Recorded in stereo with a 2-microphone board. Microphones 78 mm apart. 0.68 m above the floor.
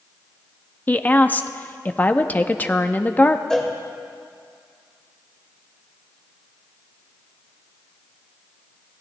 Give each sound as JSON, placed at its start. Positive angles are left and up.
{"t": 0.9, "sound": "a woman speaking", "side_deg": 20, "distance_m": 0.6}
{"t": 3.5, "sound": "a cowbell", "side_deg": 5, "distance_m": 1.9}